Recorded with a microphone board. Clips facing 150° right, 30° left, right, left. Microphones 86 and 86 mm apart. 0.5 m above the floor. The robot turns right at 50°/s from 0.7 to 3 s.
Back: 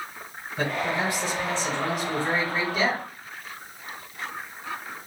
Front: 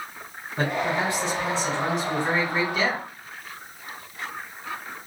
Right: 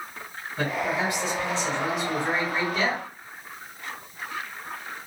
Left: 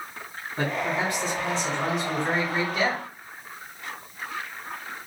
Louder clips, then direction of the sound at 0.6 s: Front 2 dB, even; 60° left.